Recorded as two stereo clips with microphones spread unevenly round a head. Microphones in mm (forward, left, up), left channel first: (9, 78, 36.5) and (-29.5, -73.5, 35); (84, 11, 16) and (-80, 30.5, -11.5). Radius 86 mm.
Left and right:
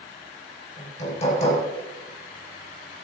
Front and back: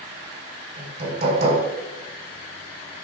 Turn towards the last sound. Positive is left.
turn(degrees=125)